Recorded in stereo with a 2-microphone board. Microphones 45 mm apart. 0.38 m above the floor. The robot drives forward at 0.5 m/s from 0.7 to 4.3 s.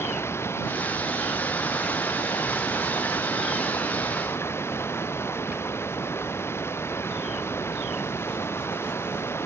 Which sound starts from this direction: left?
Running water, at 0.0 s.